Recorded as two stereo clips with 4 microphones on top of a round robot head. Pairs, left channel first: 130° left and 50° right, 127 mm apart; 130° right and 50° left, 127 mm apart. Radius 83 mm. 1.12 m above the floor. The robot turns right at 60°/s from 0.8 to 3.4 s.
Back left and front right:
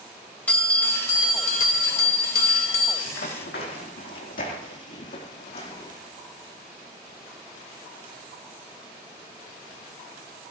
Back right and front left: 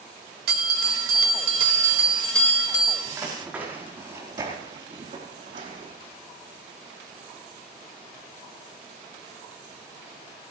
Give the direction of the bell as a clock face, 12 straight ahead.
10 o'clock.